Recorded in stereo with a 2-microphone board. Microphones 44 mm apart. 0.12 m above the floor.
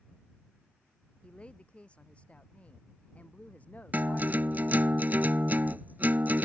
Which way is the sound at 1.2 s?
25° left (ahead or behind).